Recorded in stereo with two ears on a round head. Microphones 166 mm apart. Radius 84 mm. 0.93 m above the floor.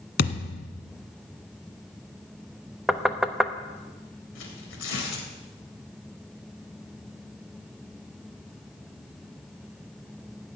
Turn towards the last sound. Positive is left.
turn(degrees=75)  # may be behind; listen again after turning